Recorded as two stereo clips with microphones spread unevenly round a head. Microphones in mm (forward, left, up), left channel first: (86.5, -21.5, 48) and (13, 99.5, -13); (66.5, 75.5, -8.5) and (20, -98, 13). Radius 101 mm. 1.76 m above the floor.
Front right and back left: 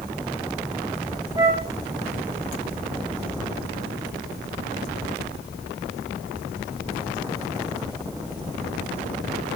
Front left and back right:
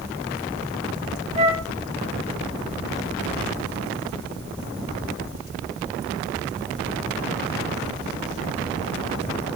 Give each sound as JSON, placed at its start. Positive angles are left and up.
{"t": 1.4, "sound": "a flute", "azimuth_deg": -165, "distance_m": 2.0}